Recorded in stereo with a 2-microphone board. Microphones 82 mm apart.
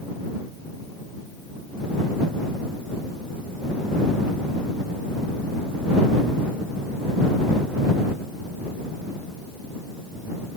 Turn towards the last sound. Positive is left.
No sound to turn to.